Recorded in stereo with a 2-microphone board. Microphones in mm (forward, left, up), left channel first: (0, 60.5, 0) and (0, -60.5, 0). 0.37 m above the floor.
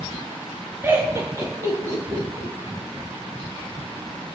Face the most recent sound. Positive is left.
turn(degrees=-35)  # may be behind; listen again after turning